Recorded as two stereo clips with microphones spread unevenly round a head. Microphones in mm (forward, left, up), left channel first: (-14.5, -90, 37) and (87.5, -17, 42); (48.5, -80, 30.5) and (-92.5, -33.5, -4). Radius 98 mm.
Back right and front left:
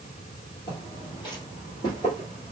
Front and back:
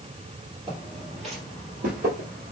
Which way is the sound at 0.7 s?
150° right.